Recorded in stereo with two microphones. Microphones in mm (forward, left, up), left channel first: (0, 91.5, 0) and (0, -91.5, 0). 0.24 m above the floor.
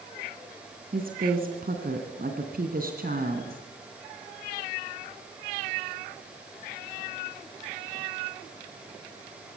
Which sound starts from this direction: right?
A woman speaking, at 0.9 s.